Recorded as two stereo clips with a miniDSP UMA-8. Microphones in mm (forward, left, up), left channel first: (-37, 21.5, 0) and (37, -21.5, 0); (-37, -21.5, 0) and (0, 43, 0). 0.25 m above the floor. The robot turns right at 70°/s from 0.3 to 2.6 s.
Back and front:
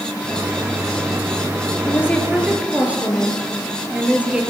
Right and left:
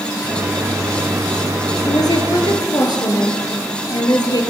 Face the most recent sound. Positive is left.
turn(degrees=-105)